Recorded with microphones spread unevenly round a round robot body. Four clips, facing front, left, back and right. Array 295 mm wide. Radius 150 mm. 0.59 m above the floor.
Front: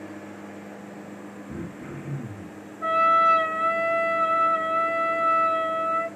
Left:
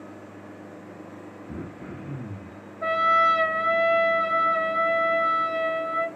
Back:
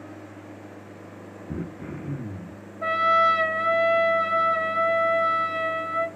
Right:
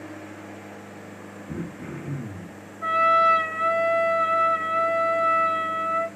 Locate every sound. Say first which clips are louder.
1.5 s throat clearing: right 4 dB, back 3 dB; 135° right, 0.7 m
2.8 s a trumpet: right 2 dB, front 1 dB; 160° left, 0.5 m